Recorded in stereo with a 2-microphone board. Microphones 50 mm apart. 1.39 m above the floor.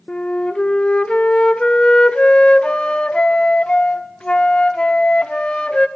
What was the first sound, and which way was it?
A flute, 20° left (ahead or behind).